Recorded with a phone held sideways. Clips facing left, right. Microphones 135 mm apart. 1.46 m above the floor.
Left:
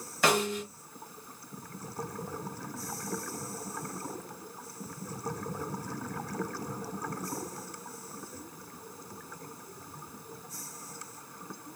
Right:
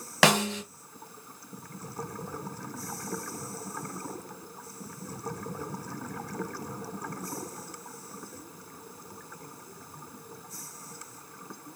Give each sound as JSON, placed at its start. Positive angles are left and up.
{"t": 0.2, "sound": "a snare drum", "side_deg": -80, "distance_m": 1.1}